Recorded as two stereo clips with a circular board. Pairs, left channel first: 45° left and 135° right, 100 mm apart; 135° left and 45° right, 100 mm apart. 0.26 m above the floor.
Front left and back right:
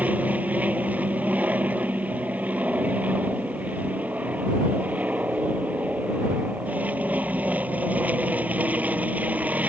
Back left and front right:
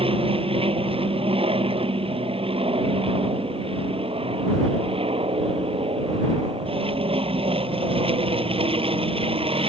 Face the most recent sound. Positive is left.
turn(degrees=-60)